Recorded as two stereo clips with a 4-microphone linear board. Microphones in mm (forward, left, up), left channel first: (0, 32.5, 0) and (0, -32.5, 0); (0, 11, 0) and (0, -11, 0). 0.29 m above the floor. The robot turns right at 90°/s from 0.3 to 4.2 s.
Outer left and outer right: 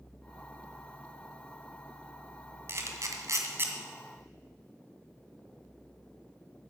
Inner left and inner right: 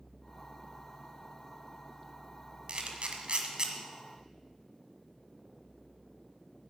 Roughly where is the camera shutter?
Right.